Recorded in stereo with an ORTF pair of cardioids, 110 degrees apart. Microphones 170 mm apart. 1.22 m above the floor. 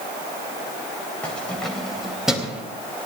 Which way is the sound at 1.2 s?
5° left.